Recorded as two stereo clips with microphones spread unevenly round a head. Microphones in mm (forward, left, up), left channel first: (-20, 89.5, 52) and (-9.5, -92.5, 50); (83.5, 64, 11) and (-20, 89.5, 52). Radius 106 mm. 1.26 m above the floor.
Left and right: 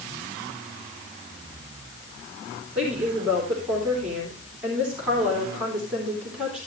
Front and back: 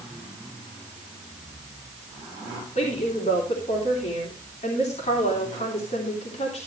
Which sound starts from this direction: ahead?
A woman speaking, at 2.8 s.